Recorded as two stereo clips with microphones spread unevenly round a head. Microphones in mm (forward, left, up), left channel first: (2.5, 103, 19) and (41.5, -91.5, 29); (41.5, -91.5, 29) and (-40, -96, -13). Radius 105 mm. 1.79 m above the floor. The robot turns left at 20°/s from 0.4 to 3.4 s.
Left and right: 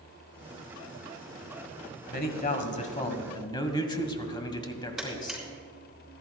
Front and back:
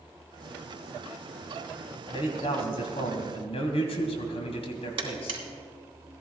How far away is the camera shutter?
About 3.5 m.